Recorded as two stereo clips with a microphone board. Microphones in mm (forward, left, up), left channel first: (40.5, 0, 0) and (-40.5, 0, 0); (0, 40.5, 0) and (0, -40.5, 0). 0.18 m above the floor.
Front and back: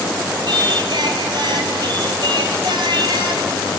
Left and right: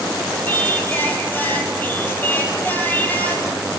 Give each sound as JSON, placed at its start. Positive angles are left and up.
{"t": 0.5, "sound": "singing", "azimuth_deg": 155, "distance_m": 3.0}